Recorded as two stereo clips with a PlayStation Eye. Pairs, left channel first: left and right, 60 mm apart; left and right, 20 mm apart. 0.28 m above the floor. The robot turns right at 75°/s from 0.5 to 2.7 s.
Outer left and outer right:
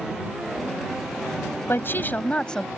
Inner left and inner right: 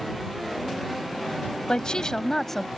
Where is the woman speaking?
95° left; by 2.7 s 170° left.